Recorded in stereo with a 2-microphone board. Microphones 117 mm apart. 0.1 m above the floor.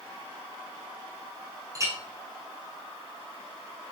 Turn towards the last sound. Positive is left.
turn(degrees=-30)  # may be behind; listen again after turning